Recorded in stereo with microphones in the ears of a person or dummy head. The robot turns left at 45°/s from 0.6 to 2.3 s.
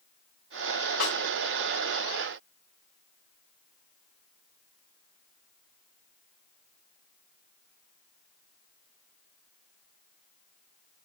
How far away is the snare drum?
About 3 m.